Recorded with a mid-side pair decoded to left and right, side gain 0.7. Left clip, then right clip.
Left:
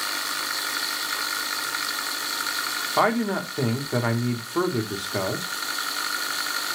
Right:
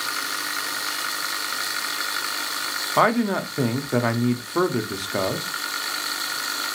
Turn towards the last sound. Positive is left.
turn(degrees=-10)